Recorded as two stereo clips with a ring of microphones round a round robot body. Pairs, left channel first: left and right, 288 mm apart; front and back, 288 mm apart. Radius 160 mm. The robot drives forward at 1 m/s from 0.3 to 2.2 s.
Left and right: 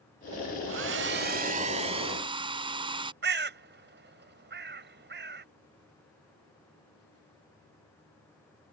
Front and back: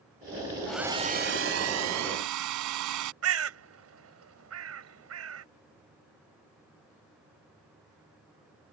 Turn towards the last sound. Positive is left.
turn(degrees=-145)